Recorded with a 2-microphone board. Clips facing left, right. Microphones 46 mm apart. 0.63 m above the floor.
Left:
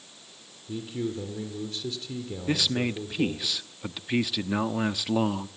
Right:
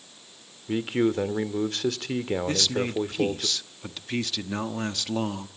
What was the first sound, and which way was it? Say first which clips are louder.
A man speaking: right 8 dB; 65° right (ahead or behind).